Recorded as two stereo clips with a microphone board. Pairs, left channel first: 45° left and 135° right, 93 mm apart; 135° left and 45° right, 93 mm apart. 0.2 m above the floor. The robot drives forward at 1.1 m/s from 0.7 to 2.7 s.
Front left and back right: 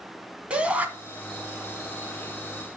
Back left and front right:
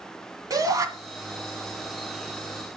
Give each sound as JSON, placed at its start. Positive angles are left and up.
{"t": 0.5, "sound": "a shout", "azimuth_deg": -65, "distance_m": 1.5}